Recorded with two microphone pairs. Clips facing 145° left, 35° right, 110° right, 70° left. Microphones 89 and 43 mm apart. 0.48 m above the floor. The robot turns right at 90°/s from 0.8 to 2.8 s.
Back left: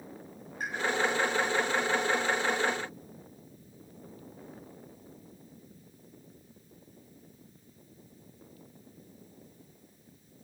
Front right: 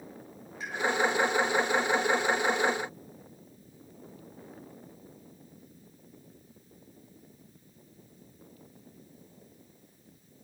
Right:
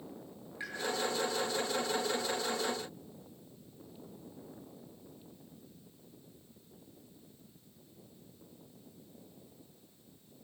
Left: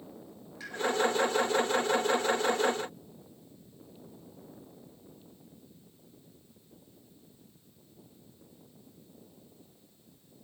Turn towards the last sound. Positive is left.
turn(degrees=5)